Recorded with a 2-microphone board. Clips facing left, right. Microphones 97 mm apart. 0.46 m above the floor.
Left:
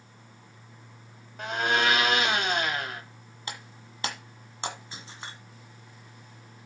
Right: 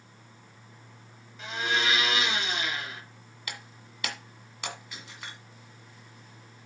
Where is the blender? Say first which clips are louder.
Left 4 dB; 55° left (ahead or behind), 1.3 m.